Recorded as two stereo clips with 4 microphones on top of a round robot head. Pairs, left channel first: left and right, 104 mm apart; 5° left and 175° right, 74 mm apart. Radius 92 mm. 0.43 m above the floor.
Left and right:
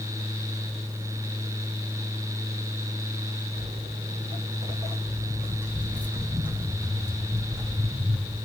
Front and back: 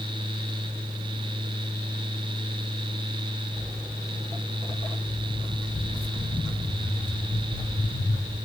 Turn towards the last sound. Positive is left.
turn(degrees=-5)